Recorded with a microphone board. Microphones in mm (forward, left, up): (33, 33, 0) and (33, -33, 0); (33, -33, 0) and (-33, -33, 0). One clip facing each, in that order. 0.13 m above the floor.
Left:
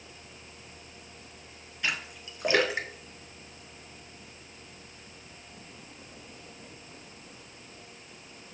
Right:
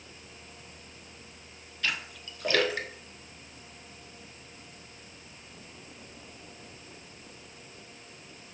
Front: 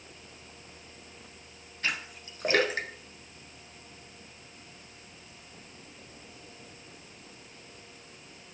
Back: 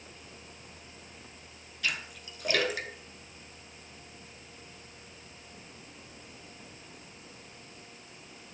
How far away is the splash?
About 1.4 m.